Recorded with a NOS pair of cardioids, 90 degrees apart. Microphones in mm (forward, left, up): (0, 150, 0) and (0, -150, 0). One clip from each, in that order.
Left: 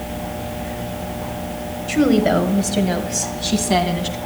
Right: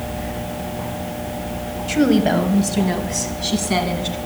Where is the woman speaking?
5° right, 1.3 m; by 4.2 s 25° left, 2.5 m.